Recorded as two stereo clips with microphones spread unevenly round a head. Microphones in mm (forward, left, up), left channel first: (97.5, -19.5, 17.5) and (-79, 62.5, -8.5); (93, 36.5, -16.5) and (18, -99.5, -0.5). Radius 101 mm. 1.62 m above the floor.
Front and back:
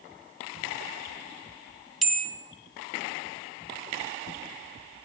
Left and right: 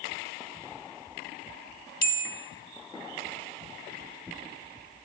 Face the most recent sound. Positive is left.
turn(degrees=60)